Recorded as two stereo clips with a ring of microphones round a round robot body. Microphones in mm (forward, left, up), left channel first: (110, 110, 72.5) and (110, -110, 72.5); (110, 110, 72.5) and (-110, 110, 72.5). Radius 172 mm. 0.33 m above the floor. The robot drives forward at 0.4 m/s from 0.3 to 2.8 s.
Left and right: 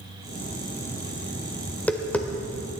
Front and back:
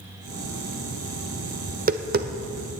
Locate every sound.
1.7 s tapping: 170° left, 0.9 m; by 2.7 s 175° left, 1.2 m